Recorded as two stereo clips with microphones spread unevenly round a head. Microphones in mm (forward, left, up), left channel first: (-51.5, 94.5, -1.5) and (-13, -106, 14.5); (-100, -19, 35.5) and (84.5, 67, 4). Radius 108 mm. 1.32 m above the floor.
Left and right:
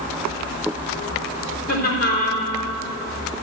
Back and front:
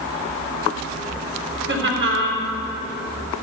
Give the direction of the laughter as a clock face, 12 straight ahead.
10 o'clock.